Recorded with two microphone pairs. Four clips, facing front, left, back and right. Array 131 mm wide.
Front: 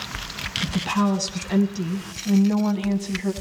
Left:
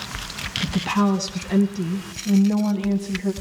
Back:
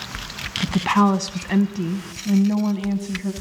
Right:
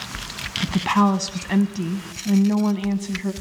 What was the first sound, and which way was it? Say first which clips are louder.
A woman speaking: right 3 dB, back 5 dB; 155° right.